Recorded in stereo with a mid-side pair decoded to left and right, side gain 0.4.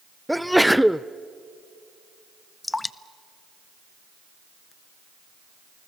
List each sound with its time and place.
0.3 s a sneeze: straight ahead, 0.5 m
2.6 s dripping: 20° left, 0.6 m